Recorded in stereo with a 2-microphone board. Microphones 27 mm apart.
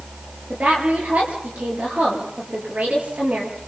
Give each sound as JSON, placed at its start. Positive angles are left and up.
{"t": 0.5, "sound": "a woman speaking", "side_deg": -75, "distance_m": 8.0}